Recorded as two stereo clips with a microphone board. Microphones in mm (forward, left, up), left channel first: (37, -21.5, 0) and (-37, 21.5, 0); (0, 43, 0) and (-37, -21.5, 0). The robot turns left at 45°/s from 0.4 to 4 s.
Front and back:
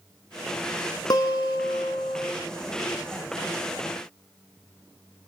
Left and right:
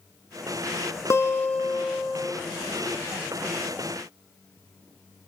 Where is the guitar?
10° left, 1.2 m; by 2.3 s 50° right, 1.2 m.